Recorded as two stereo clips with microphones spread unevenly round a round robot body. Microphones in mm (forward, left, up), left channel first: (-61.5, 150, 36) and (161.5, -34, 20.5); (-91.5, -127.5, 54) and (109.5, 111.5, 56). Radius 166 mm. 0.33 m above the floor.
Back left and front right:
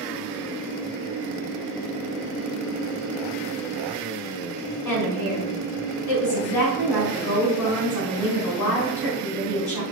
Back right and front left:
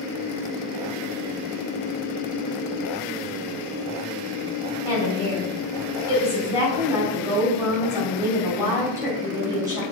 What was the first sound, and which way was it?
A woman speaking, 130° left.